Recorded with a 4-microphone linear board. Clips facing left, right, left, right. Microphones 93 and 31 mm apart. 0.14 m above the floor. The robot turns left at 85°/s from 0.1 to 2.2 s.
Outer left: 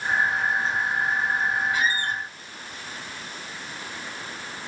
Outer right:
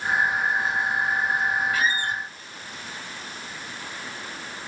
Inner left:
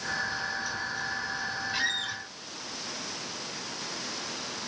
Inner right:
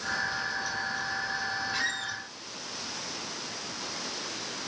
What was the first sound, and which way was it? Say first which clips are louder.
A squeak: even, inner left 1 dB; 160° left.